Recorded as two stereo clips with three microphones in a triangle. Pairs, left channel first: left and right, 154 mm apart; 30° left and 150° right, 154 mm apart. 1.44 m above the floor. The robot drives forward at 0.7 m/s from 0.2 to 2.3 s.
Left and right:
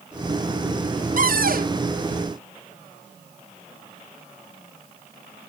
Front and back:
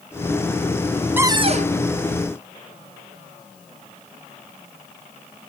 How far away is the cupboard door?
About 0.5 m.